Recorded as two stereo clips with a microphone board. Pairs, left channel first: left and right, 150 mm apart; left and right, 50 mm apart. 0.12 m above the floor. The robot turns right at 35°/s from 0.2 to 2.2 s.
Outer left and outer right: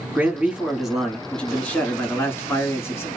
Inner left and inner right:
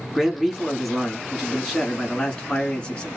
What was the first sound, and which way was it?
A man speaking, 10° right (ahead or behind).